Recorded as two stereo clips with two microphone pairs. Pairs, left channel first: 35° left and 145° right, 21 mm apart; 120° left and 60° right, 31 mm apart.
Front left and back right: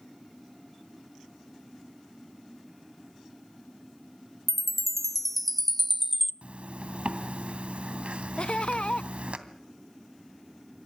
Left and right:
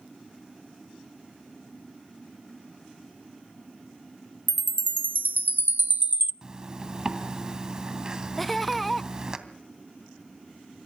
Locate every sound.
4.5 s a chime: 50° right, 0.6 m
6.4 s a zipper: 125° right, 2.5 m
8.4 s laughter: 35° left, 0.6 m